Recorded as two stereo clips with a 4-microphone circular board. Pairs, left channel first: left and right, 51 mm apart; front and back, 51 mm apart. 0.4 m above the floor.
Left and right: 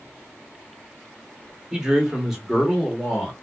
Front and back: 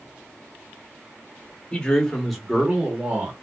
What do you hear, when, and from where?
1.7 s a man speaking: 35° right, 1.0 m; by 3.3 s straight behind, 1.1 m